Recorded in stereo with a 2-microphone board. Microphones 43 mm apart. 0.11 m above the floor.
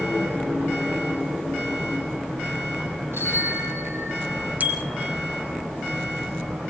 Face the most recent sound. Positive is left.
turn(degrees=-40)  # may be behind; listen again after turning